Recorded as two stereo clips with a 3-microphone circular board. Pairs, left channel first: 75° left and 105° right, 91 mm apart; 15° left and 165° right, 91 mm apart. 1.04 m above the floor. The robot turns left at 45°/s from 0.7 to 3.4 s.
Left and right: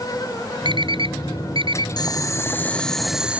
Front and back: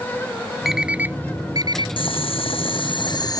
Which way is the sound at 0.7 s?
80° right.